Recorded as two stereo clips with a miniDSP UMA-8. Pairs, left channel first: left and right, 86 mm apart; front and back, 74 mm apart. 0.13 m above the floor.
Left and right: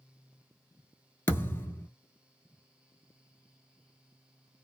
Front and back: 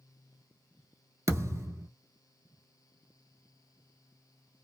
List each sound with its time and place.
1.3 s a thud: 145° left, 0.8 m